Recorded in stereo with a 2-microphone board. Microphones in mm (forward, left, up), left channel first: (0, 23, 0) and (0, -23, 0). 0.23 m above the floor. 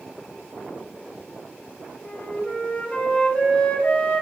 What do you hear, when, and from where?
2.0 s a flute: 30° left (ahead or behind), 0.7 m